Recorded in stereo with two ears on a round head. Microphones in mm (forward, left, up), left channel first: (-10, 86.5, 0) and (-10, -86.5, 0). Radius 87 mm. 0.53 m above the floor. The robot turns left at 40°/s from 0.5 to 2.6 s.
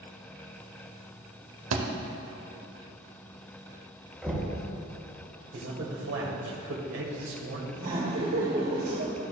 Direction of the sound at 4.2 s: 5° right (ahead or behind).